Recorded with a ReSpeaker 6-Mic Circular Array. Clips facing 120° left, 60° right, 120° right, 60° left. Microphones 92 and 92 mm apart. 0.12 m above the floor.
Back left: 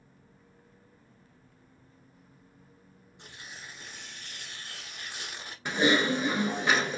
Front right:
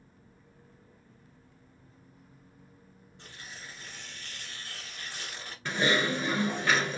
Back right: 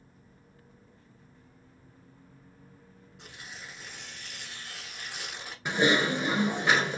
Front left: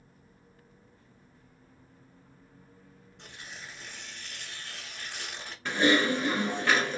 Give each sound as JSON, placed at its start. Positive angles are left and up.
{"t": 3.2, "sound": "tearing paper", "azimuth_deg": 160, "distance_m": 1.0}
{"t": 5.7, "sound": "typing on a keyboard", "azimuth_deg": 175, "distance_m": 1.0}